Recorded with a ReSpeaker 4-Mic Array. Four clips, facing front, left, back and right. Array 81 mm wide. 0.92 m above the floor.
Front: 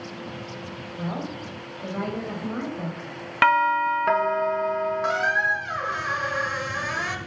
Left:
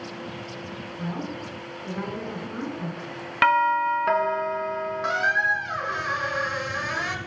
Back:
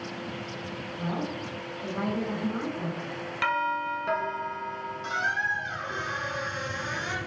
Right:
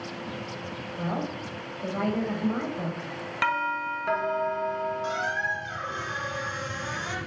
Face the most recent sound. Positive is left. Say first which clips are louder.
# left 5 dB, front 3 dB
turn(degrees=35)